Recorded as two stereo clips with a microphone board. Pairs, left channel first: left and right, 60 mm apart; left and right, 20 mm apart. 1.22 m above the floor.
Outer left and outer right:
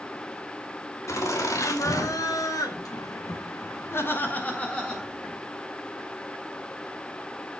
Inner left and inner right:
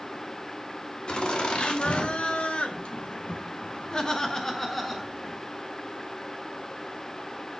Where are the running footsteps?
I don't hear running footsteps.